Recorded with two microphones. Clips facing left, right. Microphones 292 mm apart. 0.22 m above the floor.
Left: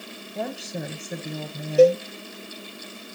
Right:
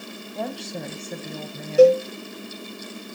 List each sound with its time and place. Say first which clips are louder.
0.3 s a woman speaking: even; 5° left (ahead or behind), 1.3 m
1.8 s a cowbell: right 2 dB; 15° right (ahead or behind), 9 m